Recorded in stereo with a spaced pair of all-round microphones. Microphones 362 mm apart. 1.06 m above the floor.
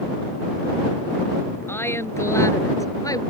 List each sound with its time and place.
1.7 s a woman speaking: 5° left (ahead or behind); by 3.2 s 10° left (ahead or behind)